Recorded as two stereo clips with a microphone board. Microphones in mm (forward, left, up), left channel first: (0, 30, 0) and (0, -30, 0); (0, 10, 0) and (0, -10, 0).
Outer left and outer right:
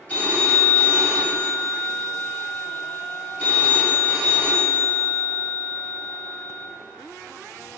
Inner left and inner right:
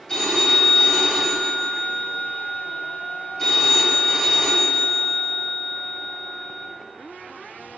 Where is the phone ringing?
20° left (ahead or behind), 3.5 m.